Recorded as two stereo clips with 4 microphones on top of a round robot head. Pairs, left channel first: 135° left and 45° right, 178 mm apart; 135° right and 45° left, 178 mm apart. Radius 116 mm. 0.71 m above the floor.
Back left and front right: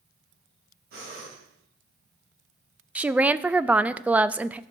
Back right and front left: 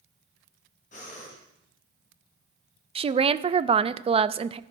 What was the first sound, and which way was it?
Breathing, 85° right.